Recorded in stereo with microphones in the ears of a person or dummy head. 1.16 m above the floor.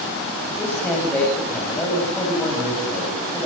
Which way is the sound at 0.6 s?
Centre (ahead or behind).